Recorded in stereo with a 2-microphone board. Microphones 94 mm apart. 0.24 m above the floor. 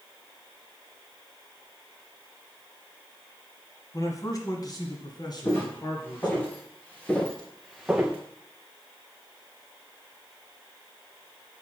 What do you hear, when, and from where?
3.9 s a man speaking: 35° left (ahead or behind), 1.4 m; by 6.5 s 50° left (ahead or behind), 3 m
5.5 s footsteps: 25° left (ahead or behind), 3.5 m; by 8.2 s 15° right (ahead or behind), 1.1 m